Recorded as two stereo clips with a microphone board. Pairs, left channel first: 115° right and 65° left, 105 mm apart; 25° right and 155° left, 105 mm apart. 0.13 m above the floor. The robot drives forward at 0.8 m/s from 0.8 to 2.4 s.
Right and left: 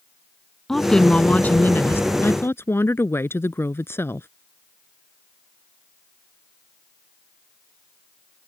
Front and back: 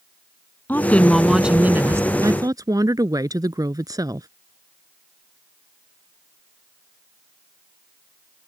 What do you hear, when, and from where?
0.7 s a woman speaking: 35° right; by 4.3 s 170° right